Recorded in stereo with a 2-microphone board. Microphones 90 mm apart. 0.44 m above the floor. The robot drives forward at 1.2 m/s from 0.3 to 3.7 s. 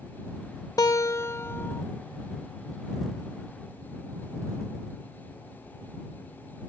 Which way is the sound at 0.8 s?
45° left (ahead or behind).